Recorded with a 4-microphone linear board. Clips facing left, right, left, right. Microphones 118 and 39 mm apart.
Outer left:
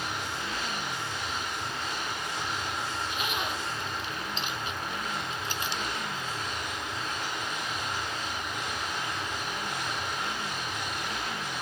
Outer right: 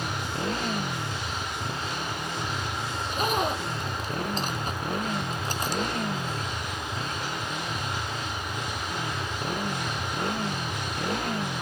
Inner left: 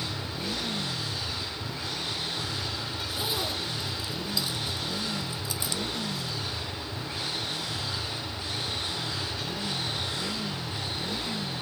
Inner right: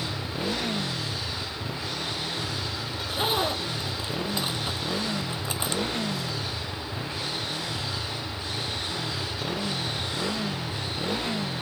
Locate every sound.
0.0 s a motorcycle: 45° right (ahead or behind)
2.9 s a zipper: 40° right (ahead or behind)